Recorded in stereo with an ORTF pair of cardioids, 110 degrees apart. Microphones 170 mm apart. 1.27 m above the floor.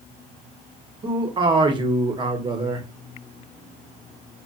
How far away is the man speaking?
About 0.9 m.